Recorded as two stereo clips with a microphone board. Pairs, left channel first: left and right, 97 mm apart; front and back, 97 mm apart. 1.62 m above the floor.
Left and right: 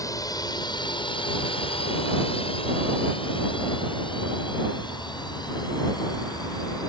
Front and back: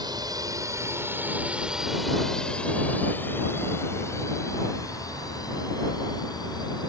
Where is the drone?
140° left; by 6.9 s 40° left.